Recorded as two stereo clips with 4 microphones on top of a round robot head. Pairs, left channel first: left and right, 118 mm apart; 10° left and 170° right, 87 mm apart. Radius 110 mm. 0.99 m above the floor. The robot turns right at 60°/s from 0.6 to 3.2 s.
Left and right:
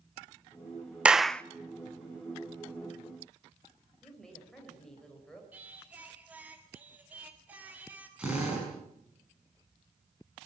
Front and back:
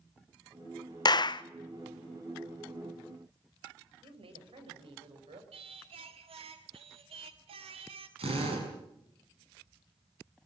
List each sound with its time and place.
1.1 s a clap: 10° right, 0.7 m; by 1.4 s 10° left, 0.7 m
4.0 s a woman speaking: 175° left, 4.5 m
5.5 s singing: 170° right, 1.8 m
8.2 s a drill: 170° right, 6 m